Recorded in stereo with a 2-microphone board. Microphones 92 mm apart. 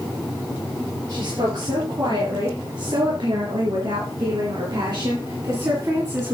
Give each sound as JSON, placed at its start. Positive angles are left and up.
{"t": 1.1, "sound": "a woman speaking", "side_deg": -50, "distance_m": 5.0}